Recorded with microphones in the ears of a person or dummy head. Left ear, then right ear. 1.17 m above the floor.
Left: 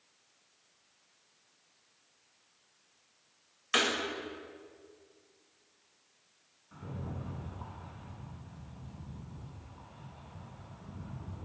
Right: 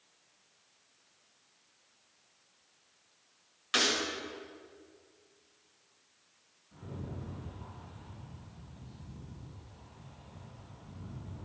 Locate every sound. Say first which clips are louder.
3.7 s breaking glass: even; 15° left (ahead or behind), 3 m
6.7 s a rattle: left 1 dB; 65° left (ahead or behind), 3.5 m